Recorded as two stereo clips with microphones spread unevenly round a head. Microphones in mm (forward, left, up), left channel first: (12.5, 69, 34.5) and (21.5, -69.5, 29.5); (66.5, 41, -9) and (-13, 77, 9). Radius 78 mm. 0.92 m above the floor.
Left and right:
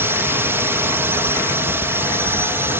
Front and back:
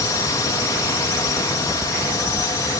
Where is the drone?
20° right.